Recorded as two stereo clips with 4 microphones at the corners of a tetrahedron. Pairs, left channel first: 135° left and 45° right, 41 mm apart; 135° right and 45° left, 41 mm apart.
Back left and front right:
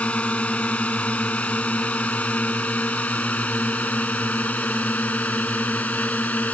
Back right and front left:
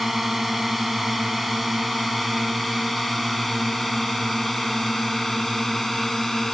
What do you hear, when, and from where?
0.0 s a drone: 130° left; by 6.5 s 145° left